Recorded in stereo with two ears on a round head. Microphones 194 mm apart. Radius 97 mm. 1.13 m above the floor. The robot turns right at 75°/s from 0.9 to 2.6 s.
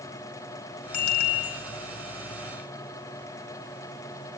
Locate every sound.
0.9 s a bicycle bell: 85° left, 9 m; by 1.6 s 135° left, 9 m